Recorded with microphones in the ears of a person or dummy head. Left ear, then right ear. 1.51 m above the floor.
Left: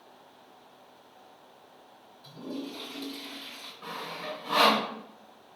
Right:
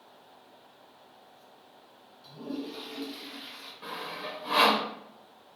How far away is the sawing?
About 0.6 m.